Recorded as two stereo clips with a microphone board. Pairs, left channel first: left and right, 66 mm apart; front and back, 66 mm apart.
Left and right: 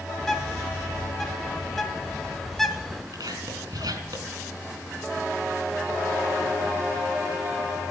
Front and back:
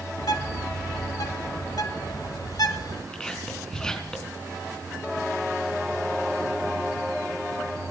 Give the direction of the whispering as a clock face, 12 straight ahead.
3 o'clock.